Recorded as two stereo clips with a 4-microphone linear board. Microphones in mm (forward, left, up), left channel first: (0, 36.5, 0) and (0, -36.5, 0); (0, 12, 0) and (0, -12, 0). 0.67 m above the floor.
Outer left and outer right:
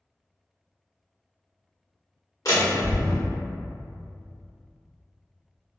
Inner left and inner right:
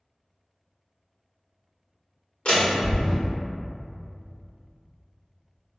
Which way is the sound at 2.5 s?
55° left (ahead or behind).